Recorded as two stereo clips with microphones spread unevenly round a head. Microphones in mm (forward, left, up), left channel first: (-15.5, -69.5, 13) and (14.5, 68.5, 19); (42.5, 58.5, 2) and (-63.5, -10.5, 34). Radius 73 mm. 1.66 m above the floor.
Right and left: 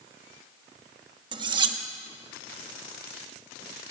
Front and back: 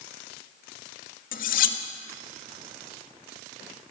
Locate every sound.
1.3 s cutlery clinking: 30° left, 1.3 m